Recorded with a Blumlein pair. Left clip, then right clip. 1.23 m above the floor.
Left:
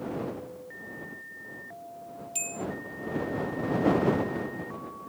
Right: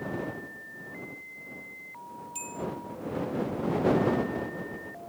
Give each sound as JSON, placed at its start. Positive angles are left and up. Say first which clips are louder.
{"t": 2.4, "sound": "a bell", "louder": "left 3 dB", "azimuth_deg": 70}